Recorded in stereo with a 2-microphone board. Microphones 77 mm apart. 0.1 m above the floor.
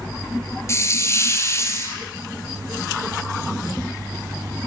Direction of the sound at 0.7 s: 35° left (ahead or behind).